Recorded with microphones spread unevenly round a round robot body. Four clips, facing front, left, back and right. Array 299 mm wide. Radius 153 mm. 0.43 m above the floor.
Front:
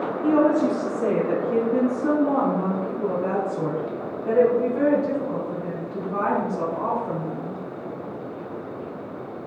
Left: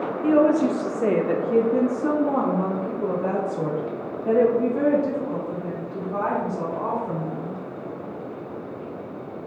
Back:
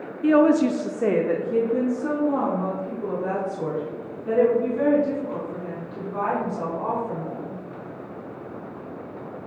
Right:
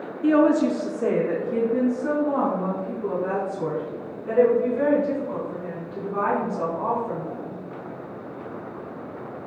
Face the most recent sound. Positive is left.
turn(degrees=65)